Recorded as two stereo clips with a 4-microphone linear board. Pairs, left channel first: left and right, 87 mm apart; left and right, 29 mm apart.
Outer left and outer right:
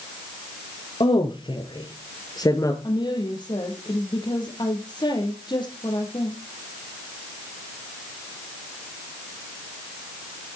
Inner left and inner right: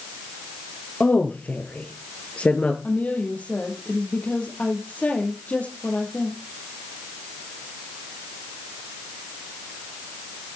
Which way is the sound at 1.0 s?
70° left (ahead or behind).